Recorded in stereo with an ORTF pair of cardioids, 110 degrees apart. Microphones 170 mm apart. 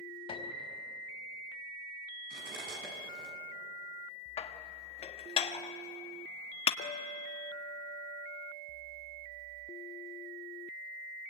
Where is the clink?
60° left, 2.5 m.